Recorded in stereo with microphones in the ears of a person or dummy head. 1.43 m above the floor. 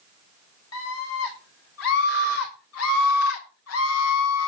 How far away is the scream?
About 7 m.